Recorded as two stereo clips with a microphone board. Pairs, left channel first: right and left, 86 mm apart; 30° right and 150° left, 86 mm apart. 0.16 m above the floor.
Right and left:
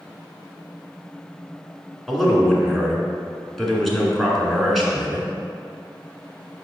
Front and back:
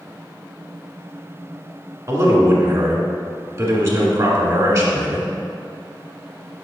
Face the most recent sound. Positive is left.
turn(degrees=180)